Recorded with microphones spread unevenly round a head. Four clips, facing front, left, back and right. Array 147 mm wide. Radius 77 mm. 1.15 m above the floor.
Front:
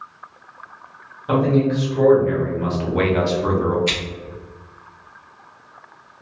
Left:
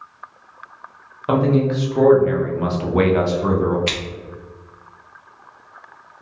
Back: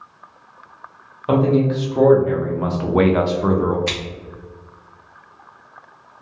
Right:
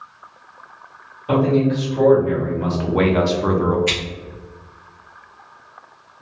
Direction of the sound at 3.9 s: 155° left.